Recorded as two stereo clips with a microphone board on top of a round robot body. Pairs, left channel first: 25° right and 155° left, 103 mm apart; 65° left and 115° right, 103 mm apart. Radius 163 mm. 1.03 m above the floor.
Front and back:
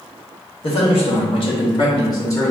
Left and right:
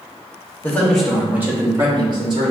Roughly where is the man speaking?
Ahead.